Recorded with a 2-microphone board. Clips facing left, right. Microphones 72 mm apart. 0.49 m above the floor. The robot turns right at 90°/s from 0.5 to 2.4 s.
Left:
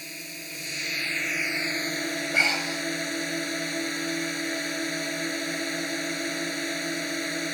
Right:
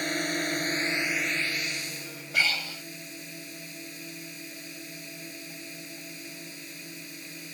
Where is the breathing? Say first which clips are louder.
Left 1 dB; 30° left (ahead or behind); by 2.9 s 25° left (ahead or behind).